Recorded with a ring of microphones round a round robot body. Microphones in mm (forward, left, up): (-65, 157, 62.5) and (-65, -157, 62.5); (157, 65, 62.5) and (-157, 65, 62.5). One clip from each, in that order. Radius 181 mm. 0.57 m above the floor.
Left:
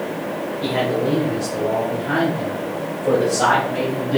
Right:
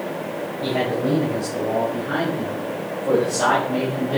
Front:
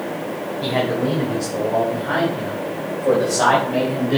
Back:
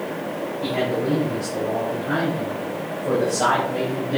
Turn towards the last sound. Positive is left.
turn(degrees=-10)